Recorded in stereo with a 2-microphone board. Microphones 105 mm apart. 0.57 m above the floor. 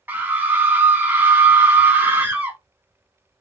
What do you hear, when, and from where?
0.1 s a scream: 20° right (ahead or behind), 0.8 m